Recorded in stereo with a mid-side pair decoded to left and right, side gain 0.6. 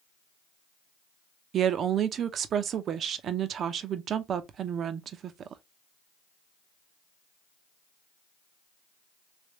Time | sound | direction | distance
1.5 | a woman speaking | 50° right | 0.7 m